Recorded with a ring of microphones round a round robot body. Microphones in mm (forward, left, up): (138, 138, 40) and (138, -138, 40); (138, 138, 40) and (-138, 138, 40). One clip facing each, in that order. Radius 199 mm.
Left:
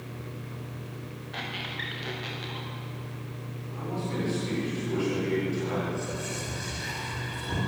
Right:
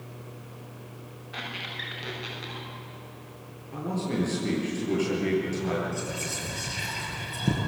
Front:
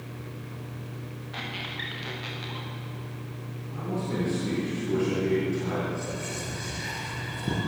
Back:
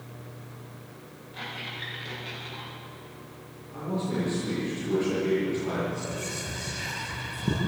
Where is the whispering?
100° right, 10 m.